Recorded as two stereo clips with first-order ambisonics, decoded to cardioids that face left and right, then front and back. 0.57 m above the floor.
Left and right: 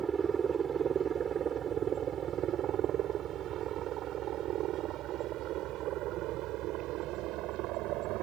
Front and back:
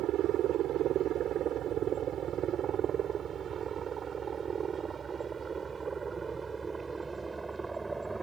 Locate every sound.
0.0 s a helicopter: 150° right; by 8.2 s 100° right